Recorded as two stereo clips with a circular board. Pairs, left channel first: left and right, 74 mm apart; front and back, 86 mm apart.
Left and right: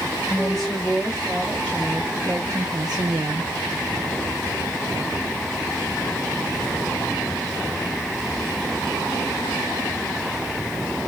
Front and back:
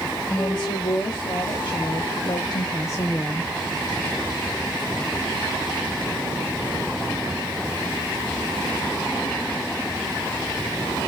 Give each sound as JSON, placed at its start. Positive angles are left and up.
{"t": 0.3, "sound": "a woman speaking", "azimuth_deg": -5, "distance_m": 2.0}